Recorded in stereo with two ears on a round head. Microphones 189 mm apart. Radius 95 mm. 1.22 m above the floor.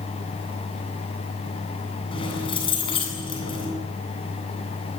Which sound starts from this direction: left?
Keys jangling, at 2.1 s.